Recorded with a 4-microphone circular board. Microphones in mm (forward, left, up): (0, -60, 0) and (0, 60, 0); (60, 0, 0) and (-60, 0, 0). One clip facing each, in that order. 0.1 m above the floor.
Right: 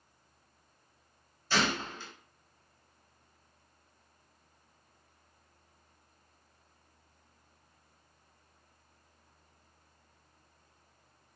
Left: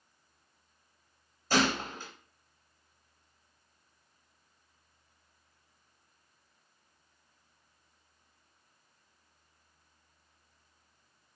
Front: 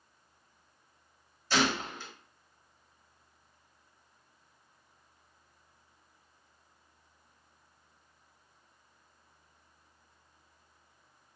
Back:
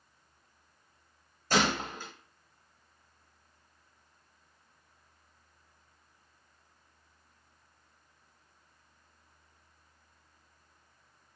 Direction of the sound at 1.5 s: 135° left.